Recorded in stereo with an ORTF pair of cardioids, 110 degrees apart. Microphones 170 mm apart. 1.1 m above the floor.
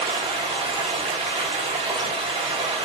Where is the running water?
35° right, 1.7 m.